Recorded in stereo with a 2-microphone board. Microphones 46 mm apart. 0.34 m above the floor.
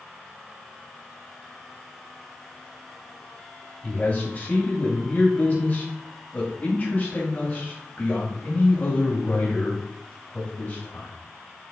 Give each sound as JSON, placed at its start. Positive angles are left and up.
{"t": 3.8, "sound": "a man speaking", "side_deg": 35, "distance_m": 1.9}